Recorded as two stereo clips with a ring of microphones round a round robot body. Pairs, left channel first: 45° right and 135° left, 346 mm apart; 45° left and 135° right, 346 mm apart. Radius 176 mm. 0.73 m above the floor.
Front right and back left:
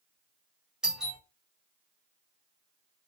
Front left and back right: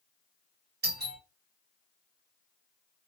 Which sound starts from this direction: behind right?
A doorbell, at 0.8 s.